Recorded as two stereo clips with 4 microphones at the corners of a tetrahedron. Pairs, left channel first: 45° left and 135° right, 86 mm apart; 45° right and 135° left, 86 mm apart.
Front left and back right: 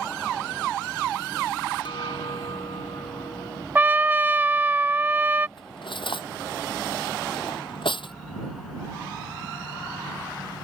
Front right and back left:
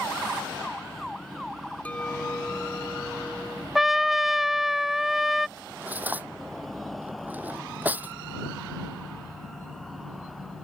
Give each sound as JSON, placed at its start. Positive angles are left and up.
{"t": 1.9, "sound": "a clink", "azimuth_deg": 30}
{"t": 3.8, "sound": "a trumpet", "azimuth_deg": -145}
{"t": 5.6, "sound": "cutlery clinking", "azimuth_deg": 65}